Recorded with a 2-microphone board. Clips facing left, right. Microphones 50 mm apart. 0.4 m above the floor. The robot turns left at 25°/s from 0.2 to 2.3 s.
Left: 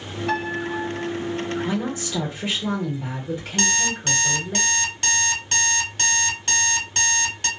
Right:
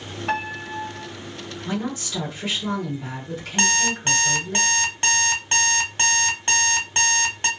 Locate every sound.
0.3 s a piano: 25° right (ahead or behind), 1.8 m; by 1.1 s 15° right (ahead or behind), 1.8 m
1.6 s a woman speaking: 15° left (ahead or behind), 1.3 m; by 4.6 s 20° left (ahead or behind), 1.3 m
3.6 s an alarm clock: 25° right (ahead or behind), 0.7 m